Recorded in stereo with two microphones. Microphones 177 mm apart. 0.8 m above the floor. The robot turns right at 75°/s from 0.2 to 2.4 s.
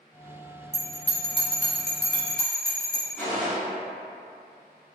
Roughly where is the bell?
Centre.